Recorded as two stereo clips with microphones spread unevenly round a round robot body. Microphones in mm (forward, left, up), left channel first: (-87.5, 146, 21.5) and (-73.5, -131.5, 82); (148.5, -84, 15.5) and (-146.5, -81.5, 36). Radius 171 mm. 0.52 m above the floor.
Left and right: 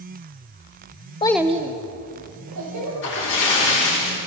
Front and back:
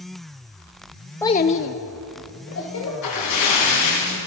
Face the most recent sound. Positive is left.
turn(degrees=40)